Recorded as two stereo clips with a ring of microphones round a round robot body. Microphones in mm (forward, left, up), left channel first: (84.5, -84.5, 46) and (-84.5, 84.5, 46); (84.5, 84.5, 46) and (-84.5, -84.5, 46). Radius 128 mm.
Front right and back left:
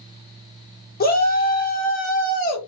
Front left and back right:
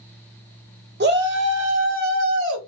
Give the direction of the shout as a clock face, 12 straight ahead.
3 o'clock.